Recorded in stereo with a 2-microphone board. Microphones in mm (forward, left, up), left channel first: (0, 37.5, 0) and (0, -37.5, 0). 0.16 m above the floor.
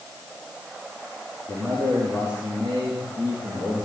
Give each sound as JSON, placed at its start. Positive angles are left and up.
{"t": 1.5, "sound": "a man speaking", "side_deg": -20, "distance_m": 10.0}